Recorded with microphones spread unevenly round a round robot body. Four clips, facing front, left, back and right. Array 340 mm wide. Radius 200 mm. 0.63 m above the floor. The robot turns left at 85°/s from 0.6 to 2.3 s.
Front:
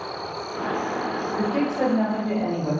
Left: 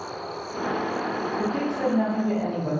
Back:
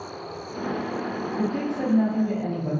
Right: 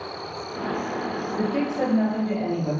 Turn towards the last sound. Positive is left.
turn(degrees=-170)